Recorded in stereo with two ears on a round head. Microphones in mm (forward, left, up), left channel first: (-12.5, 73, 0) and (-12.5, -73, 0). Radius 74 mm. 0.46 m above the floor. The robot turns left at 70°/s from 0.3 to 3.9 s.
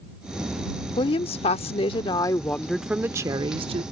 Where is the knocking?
I don't hear knocking.